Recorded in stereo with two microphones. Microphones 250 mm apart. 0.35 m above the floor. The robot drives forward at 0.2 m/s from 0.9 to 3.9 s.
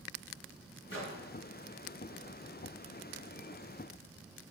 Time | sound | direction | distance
0.9 | a microwave | 55° left (ahead or behind) | 3 m